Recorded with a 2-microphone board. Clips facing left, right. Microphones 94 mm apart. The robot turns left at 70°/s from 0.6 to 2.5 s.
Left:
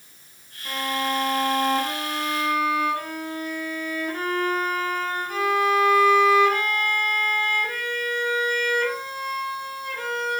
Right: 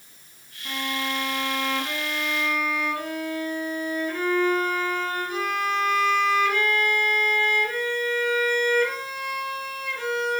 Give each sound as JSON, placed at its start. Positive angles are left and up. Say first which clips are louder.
{"t": 0.7, "sound": "a violin", "louder": "left 3 dB", "azimuth_deg": 175, "distance_m": 2.5}